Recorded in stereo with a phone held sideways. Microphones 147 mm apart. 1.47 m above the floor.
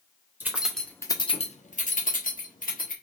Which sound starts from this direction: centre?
Keys jangling, at 0.4 s.